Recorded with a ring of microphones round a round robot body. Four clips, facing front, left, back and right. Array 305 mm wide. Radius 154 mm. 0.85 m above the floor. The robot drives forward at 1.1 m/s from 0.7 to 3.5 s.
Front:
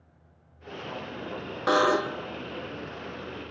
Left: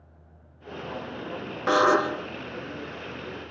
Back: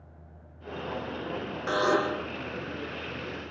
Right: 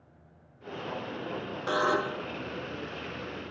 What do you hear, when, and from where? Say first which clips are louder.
1.7 s a buzzer: left 7 dB, front 3 dB; 45° left, 0.6 m; by 2.3 s 145° left, 0.7 m